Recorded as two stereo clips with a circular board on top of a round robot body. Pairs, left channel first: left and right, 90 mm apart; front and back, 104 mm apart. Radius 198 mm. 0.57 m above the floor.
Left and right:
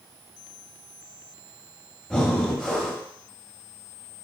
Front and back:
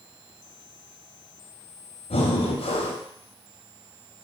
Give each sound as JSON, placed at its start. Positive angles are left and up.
{"t": 2.1, "sound": "breathing", "azimuth_deg": 5, "distance_m": 0.8}